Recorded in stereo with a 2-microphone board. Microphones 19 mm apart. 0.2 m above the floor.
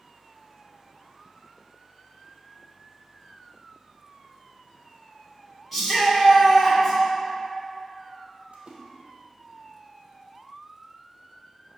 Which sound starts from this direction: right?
A splash, at 8.5 s.